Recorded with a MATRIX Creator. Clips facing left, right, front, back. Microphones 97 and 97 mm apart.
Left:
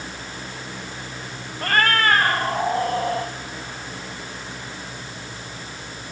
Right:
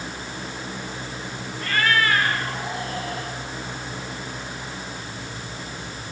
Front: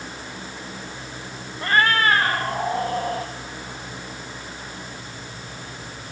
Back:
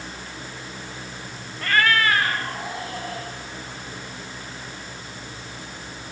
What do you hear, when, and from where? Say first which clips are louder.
1.6 s a cat meowing: left 2 dB, front 1 dB; 65° left, 1.4 m; by 3.3 s 45° left, 3.5 m